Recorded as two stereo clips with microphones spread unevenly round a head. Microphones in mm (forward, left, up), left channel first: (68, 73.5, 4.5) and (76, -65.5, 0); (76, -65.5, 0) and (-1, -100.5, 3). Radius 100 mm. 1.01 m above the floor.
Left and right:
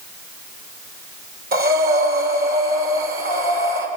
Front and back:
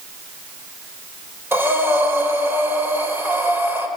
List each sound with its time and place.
1.5 s breathing: 90° right, 4 m